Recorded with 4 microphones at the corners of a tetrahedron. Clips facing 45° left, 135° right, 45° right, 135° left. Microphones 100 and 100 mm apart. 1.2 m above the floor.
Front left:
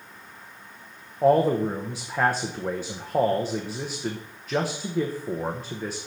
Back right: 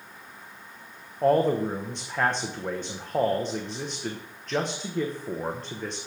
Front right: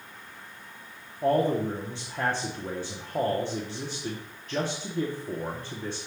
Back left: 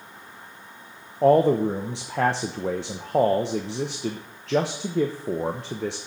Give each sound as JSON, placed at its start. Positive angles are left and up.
{"t": 1.2, "sound": "a man speaking", "azimuth_deg": 130, "distance_m": 0.8}